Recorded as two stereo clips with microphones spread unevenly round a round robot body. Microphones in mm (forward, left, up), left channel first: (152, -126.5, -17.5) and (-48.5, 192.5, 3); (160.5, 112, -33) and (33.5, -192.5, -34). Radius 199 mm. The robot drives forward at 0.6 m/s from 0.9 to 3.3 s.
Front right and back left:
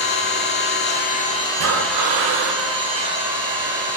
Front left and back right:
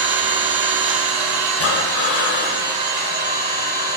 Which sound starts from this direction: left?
Breathing, at 1.6 s.